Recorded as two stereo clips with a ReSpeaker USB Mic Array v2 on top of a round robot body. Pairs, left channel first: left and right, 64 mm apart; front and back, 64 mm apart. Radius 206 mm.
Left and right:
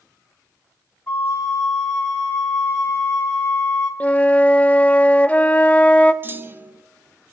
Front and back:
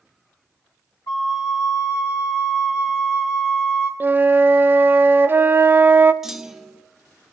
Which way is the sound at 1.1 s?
25° left.